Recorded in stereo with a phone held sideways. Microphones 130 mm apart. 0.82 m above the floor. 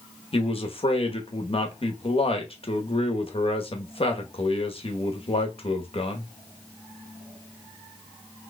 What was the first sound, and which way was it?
A man speaking, 45° left (ahead or behind).